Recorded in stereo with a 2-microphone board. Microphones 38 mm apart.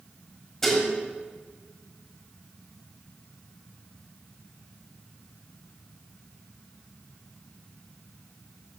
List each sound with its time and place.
0.6 s dishes clattering: 5° left (ahead or behind), 1.5 m